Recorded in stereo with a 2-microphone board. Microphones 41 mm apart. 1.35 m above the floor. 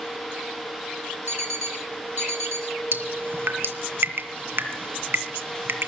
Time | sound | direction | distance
1.3 | an alarm clock | 70° right (ahead or behind) | 2.5 m
2.9 | dripping | 60° right (ahead or behind) | 2.5 m